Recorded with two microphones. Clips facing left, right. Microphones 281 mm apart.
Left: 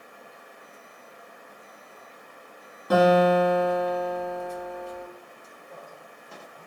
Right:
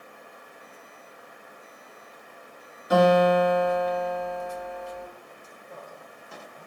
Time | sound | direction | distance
2.9 | a guitar | 65° left (ahead or behind) | 1.6 m